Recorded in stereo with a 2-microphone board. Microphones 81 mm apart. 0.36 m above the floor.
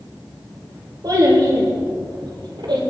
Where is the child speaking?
55° right (ahead or behind), 5 m; by 2.8 s 70° right (ahead or behind), 5.5 m.